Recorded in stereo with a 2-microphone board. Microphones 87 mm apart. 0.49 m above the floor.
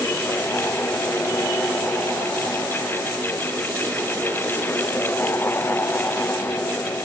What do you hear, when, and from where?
Only background noise.